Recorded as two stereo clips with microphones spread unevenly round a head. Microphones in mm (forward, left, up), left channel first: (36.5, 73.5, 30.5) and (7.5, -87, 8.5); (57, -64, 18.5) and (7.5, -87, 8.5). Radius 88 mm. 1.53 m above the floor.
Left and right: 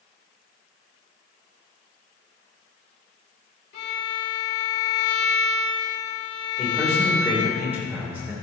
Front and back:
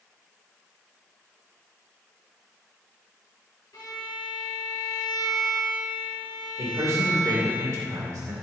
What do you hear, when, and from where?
3.7 s a violin: 60° left, 3.5 m
6.6 s a man speaking: straight behind, 2.5 m